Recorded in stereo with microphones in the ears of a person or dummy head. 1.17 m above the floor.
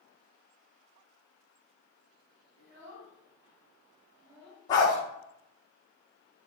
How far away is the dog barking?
About 0.7 m.